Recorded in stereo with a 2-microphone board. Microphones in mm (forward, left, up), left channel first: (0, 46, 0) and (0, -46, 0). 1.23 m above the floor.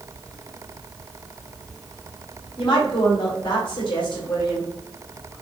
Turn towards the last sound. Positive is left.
turn(degrees=60)  # may be behind; listen again after turning